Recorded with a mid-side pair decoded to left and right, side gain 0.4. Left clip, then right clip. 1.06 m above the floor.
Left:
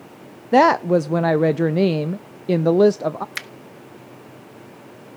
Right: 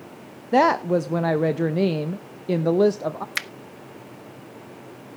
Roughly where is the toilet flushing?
No toilet flushing in this recording.